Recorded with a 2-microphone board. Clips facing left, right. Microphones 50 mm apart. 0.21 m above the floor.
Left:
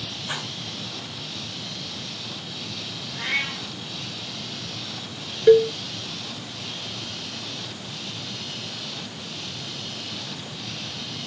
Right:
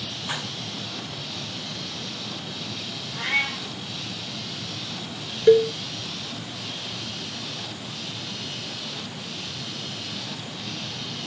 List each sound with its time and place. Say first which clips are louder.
0.3 s dishes clattering: even; 20° right (ahead or behind), 9.5 m
3.1 s a cat meowing: right 2 dB; 30° right (ahead or behind), 6.5 m
5.5 s a cowbell: left 1 dB; 10° left (ahead or behind), 0.7 m